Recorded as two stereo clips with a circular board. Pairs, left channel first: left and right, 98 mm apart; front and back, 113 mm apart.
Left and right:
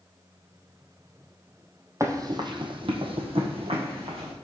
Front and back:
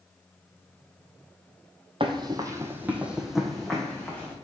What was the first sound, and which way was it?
Running footsteps, 145° right.